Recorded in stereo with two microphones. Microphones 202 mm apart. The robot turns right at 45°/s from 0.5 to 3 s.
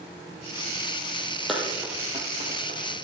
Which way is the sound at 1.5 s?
Centre (ahead or behind).